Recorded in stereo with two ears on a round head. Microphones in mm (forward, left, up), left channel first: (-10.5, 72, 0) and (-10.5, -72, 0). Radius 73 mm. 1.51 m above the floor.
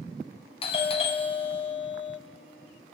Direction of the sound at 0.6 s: 35° left (ahead or behind).